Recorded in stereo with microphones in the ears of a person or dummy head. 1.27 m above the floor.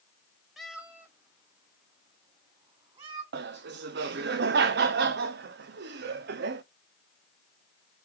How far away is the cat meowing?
About 0.9 m.